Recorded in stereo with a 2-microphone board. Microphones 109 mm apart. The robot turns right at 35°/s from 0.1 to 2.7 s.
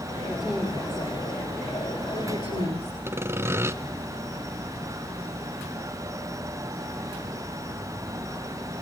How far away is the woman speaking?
About 5 m.